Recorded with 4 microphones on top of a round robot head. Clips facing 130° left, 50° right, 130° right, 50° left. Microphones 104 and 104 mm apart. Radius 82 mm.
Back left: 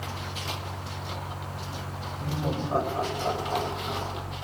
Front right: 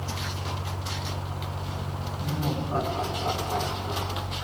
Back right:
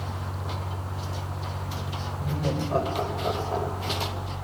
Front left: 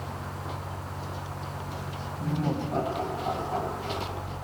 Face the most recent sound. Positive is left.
turn(degrees=-160)